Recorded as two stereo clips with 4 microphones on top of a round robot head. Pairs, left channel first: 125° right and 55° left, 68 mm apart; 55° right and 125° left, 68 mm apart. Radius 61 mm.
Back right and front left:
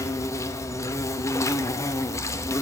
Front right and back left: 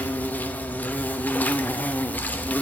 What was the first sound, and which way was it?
An insect, 110° right.